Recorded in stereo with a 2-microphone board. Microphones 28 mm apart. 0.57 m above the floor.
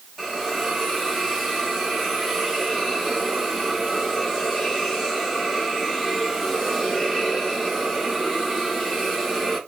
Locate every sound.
0.2 s a hiss: 5° left (ahead or behind), 2 m